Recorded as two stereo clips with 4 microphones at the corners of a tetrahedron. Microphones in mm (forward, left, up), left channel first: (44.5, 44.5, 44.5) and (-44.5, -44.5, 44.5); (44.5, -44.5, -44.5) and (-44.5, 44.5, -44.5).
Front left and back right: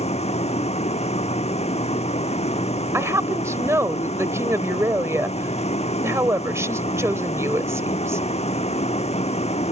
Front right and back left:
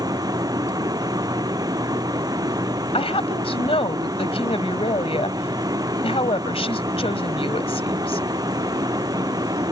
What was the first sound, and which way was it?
A vehicle, 75° left.